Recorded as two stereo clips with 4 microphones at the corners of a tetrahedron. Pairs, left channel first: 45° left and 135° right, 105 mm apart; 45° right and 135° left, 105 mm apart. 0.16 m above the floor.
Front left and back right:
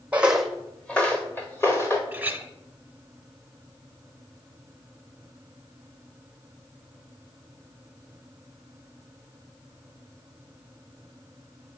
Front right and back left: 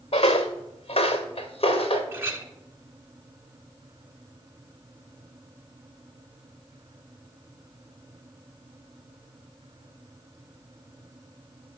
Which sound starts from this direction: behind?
A clink, at 2.1 s.